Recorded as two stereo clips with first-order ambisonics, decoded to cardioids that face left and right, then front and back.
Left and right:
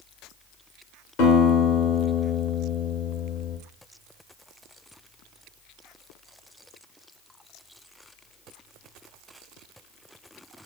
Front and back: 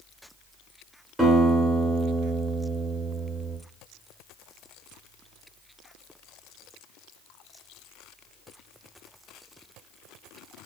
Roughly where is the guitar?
Left.